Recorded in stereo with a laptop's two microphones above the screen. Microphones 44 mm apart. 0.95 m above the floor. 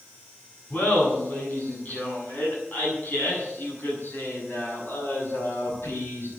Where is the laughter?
40° left (ahead or behind), 8 m; by 6.3 s 65° left (ahead or behind), 6.5 m.